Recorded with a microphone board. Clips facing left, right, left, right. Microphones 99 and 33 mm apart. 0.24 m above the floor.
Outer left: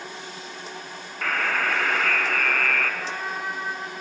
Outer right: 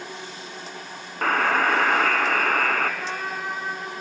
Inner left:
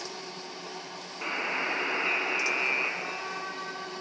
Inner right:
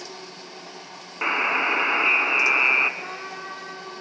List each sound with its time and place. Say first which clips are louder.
1.2 s a buzzer: outer right 5 dB, inner right 9 dB; 45° right (ahead or behind), 1.3 m
3.0 s a trumpet: outer right 1 dB, inner right 1 dB; 10° right (ahead or behind), 2.5 m